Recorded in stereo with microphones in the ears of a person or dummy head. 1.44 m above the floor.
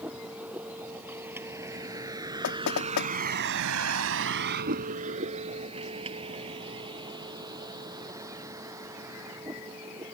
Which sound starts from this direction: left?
Knocking, at 2.4 s.